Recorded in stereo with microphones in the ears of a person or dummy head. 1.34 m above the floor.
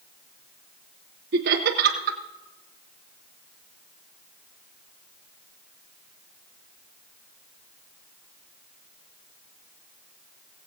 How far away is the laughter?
About 0.9 m.